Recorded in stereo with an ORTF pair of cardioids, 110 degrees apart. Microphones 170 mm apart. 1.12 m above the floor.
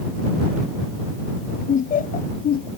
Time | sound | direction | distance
1.7 | laughter | 50° left | ?